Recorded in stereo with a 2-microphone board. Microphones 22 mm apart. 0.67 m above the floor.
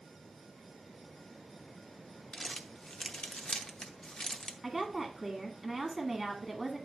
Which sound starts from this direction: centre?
A woman speaking, at 4.6 s.